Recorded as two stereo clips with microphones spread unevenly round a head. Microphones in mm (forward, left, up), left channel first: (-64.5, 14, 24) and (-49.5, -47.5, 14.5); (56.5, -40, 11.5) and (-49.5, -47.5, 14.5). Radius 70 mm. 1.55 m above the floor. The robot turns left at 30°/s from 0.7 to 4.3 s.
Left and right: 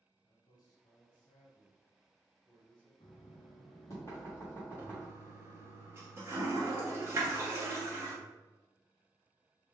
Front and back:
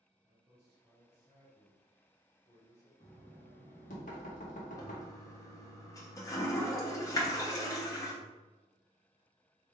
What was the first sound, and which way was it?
A man speaking, 115° left.